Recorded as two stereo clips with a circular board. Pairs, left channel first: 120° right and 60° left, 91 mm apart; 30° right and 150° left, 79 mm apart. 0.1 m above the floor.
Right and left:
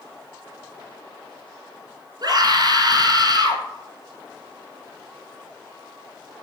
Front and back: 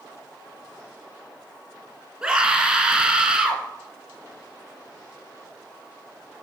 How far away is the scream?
About 1.9 m.